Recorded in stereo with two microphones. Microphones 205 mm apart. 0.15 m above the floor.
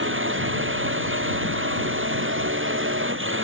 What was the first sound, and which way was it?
A drone, 80° right.